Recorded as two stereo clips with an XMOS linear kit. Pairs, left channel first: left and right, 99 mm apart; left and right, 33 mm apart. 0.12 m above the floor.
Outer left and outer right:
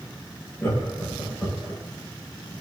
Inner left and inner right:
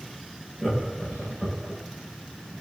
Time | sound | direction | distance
0.6 | laughter | 25° left (ahead or behind) | 7.5 m